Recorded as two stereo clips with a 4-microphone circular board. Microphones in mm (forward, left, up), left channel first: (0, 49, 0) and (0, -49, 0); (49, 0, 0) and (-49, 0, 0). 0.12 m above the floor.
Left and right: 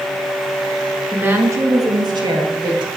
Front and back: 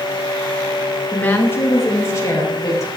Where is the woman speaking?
50° right, 1.0 m; by 2.9 s 55° right, 2.5 m.